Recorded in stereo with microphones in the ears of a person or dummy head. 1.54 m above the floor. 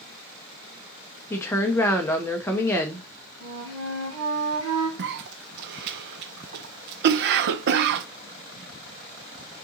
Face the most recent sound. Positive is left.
turn(degrees=-65)  # may be behind; listen again after turning